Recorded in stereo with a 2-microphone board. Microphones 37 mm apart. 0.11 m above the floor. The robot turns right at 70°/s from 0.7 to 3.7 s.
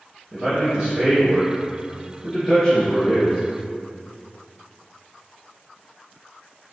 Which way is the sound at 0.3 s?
25° right (ahead or behind).